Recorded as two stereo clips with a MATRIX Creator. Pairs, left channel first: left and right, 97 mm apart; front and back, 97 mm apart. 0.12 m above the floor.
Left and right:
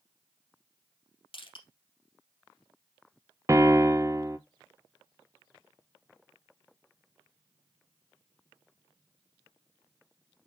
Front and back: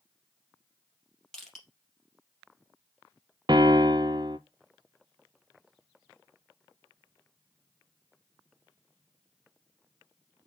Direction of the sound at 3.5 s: 145° right.